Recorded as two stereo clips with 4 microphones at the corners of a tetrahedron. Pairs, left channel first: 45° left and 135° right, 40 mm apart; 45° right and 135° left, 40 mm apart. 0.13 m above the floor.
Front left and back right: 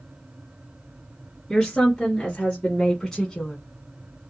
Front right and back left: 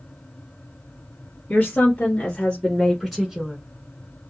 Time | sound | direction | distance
1.5 | a woman speaking | 30° right | 1.8 m